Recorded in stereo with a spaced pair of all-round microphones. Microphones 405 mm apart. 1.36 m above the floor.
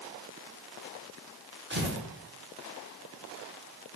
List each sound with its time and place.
1.7 s tearing paper: 25° right (ahead or behind), 0.9 m